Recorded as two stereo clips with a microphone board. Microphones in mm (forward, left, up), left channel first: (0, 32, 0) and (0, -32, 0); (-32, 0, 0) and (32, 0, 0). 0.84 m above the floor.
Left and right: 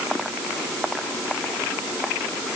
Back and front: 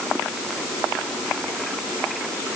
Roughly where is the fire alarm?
I don't hear a fire alarm.